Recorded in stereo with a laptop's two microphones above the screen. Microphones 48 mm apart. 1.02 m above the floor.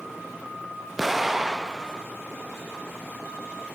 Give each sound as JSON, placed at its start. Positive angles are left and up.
{"t": 1.0, "sound": "an explosion", "side_deg": 0, "distance_m": 0.5}